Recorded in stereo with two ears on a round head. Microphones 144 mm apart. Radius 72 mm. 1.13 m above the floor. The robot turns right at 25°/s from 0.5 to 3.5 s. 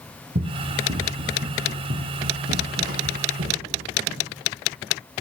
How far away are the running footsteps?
About 3 m.